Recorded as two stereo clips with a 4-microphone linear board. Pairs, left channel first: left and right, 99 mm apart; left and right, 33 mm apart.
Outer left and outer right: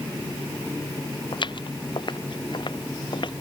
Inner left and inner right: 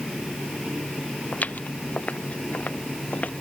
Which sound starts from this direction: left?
Footsteps, at 1.3 s.